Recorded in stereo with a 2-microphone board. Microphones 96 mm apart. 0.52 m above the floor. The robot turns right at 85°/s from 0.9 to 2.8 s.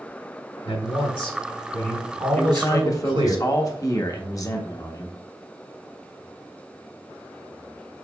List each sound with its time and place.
0.7 s a man speaking: 90° left, 2.5 m; by 3.4 s 110° right, 2.5 m
2.4 s a man speaking: 35° left, 0.8 m; by 5.2 s 70° left, 0.8 m